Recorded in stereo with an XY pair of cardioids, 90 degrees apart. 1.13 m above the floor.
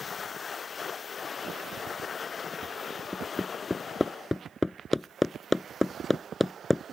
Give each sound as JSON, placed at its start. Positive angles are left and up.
{"t": 3.1, "sound": "hammering", "azimuth_deg": 20}